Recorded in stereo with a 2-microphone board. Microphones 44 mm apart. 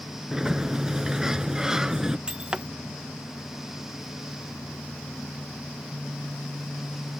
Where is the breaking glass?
20° right (ahead or behind).